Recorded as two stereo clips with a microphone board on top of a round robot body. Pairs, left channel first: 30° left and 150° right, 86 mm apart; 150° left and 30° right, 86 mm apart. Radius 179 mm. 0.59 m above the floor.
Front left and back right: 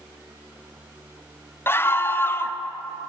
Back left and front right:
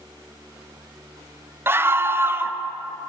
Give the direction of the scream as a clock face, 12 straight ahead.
12 o'clock.